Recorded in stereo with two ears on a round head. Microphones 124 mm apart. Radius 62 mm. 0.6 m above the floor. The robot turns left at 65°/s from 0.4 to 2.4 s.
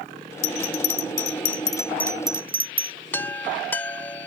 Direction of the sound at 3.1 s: 15° left (ahead or behind).